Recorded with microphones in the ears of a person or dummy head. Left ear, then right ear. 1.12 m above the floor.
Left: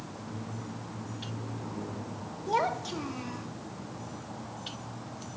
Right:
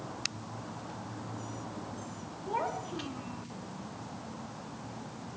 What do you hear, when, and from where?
2.5 s a child speaking: 90° left, 1.5 m